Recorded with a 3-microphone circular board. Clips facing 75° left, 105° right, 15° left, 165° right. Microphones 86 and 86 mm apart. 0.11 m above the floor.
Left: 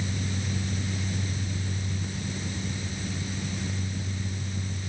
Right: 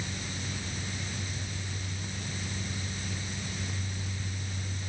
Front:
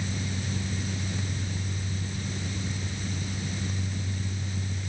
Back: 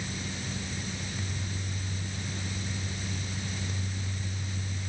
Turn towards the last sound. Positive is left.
No sound to turn to.